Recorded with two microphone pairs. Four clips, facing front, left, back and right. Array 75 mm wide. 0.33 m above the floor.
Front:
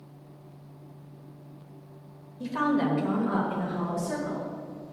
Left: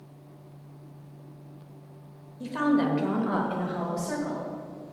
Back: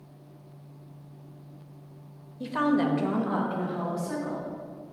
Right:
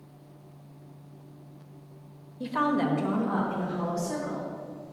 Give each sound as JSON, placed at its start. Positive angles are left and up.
{"t": 2.4, "sound": "a woman speaking", "azimuth_deg": -110, "distance_m": 1.1}